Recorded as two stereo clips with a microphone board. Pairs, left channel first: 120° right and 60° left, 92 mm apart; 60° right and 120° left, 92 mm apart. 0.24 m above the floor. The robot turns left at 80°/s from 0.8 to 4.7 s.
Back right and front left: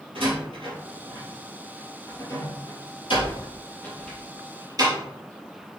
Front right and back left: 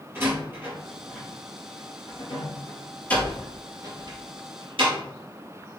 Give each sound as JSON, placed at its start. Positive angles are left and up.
{"t": 0.1, "sound": "a door slam", "azimuth_deg": 55, "distance_m": 3.5}